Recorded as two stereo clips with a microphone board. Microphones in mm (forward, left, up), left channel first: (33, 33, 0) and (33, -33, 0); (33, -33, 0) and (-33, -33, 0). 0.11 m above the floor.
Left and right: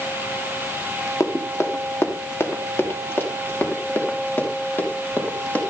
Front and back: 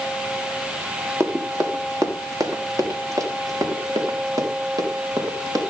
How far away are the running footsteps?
About 3 m.